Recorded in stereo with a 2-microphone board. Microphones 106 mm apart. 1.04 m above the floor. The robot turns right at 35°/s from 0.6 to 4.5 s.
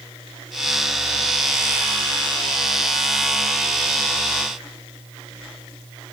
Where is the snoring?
I don't hear snoring.